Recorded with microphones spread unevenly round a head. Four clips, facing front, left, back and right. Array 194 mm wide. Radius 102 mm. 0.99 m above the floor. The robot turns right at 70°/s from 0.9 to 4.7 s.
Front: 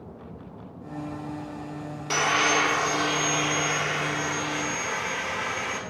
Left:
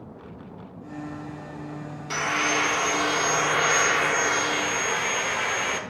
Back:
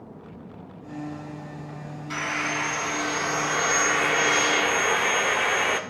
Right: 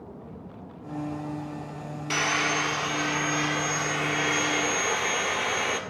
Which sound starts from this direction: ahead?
Sawing, at 2.1 s.